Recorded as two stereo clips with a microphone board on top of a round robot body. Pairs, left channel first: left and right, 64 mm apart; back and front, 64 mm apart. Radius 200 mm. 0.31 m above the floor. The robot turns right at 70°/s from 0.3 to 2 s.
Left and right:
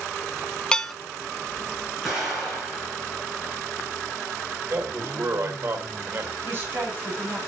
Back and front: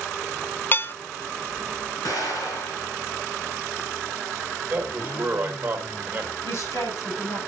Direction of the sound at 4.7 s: 60° right.